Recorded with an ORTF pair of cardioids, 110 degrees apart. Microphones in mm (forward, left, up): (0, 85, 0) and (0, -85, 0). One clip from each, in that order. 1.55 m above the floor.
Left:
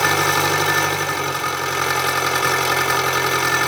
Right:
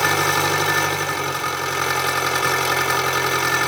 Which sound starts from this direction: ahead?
An engine running, at 0.0 s.